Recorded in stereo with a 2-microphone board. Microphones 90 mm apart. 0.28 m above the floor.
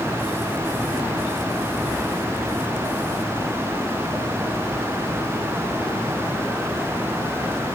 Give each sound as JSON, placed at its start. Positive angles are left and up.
{"t": 1.9, "sound": "breathing", "side_deg": -5, "distance_m": 2.0}